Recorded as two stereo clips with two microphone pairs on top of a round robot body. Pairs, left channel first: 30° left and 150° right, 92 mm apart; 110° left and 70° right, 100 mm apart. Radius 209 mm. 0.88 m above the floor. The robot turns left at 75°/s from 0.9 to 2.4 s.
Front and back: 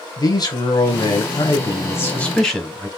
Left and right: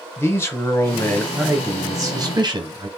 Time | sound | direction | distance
0.2 | a man speaking | 55° left | 1.2 m